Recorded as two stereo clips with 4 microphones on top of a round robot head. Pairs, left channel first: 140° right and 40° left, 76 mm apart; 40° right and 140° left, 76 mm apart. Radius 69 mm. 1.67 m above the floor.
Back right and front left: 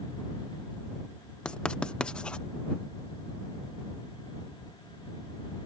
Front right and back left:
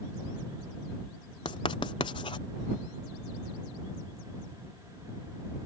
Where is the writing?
65° right.